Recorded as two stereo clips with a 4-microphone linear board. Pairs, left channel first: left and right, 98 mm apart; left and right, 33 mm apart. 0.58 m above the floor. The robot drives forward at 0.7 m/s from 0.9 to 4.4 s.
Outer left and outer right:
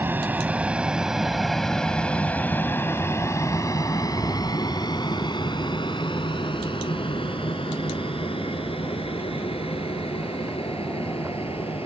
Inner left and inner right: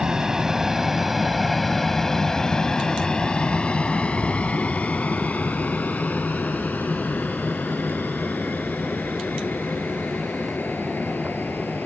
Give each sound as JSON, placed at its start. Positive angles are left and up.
{"t": 0.0, "sound": "an aircraft", "side_deg": -20}